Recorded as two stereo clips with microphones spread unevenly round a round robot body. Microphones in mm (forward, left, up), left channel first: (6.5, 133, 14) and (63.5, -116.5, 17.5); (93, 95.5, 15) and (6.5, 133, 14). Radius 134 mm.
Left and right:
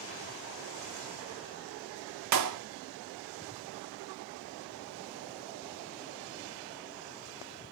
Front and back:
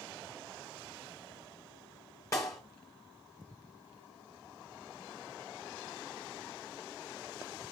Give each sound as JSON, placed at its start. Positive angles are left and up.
{"t": 2.3, "sound": "a clap", "azimuth_deg": -95, "distance_m": 0.9}